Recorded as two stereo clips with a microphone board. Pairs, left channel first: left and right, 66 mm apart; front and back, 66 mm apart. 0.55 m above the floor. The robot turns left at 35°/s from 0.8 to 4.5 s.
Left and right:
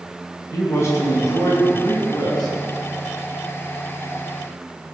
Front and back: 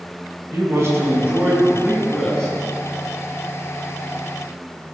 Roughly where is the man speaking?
Behind left.